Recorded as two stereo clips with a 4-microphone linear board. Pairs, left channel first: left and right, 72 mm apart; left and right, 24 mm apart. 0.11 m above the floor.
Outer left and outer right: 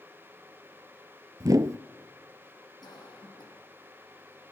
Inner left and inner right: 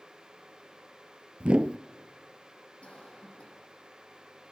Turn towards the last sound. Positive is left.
turn(degrees=75)  # may be behind; listen again after turning